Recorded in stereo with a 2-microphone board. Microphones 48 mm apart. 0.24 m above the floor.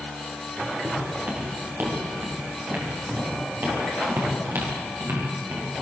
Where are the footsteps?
35° right (ahead or behind), 8 m; by 5.7 s 55° right (ahead or behind), 12 m.